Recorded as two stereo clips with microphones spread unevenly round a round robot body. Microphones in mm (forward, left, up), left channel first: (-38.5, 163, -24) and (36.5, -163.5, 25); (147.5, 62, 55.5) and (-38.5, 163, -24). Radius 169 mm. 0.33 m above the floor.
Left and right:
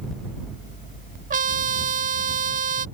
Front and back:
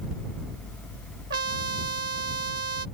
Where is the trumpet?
145° right.